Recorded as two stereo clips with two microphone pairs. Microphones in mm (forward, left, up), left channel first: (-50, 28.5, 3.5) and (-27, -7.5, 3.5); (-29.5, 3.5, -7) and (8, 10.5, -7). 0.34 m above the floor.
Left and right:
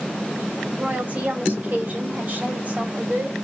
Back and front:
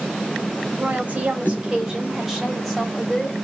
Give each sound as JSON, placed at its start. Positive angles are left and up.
{"t": 0.8, "sound": "a woman speaking", "azimuth_deg": -25, "distance_m": 1.4}